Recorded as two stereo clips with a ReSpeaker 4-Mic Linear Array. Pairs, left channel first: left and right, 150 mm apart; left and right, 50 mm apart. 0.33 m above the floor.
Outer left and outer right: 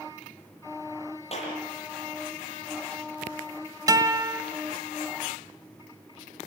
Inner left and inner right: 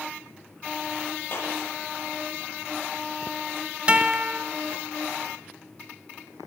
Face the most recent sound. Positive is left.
turn(degrees=-25)  # may be behind; listen again after turning